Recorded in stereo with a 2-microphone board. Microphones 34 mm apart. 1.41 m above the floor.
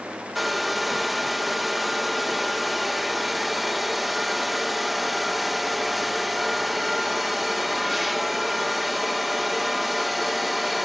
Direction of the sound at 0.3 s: 5° right (ahead or behind).